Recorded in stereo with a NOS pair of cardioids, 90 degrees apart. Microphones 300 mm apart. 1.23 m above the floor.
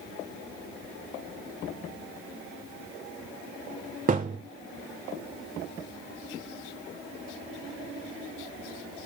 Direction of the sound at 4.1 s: 30° right.